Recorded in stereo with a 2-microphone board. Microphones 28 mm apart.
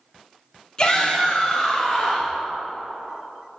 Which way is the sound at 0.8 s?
30° left (ahead or behind).